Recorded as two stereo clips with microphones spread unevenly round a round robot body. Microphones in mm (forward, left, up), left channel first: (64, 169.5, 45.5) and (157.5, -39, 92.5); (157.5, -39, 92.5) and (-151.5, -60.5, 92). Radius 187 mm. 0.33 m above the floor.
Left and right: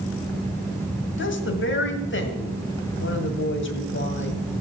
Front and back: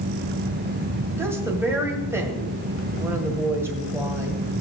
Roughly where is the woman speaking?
Left.